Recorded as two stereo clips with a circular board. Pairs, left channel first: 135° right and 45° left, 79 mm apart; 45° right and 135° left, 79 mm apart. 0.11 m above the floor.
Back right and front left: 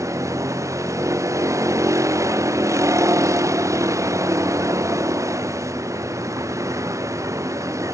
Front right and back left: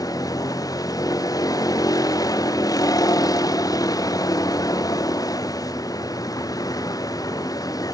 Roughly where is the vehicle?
Ahead.